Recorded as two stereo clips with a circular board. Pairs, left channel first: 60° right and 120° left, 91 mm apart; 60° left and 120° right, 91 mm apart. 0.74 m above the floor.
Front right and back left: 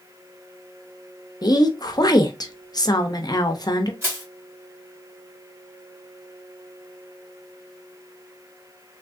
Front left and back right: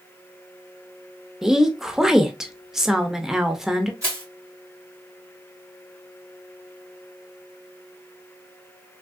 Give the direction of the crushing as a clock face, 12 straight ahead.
6 o'clock.